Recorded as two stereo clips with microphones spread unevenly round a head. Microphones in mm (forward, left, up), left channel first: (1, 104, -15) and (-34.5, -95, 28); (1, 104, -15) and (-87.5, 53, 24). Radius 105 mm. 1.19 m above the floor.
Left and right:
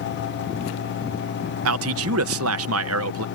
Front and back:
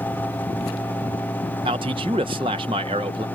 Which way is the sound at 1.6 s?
85° right.